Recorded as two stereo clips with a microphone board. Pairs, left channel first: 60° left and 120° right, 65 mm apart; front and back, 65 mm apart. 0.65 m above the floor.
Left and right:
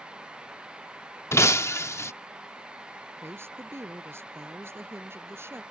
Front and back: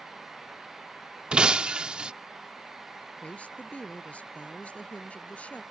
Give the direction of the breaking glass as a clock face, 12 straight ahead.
8 o'clock.